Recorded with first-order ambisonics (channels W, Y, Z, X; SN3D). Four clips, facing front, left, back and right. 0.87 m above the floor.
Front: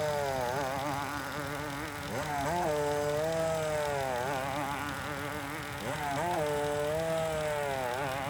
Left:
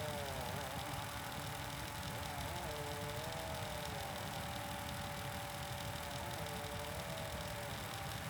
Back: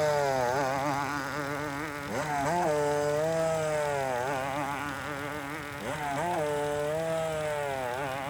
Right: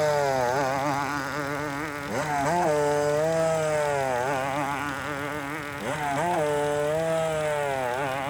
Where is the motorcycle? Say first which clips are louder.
Right 20 dB, back 5 dB; 110° right; by 8.3 s 95° right.